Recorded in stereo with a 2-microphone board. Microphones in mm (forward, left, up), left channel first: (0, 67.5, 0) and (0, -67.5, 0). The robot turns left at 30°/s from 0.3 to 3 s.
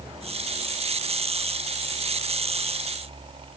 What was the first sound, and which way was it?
Only background noise.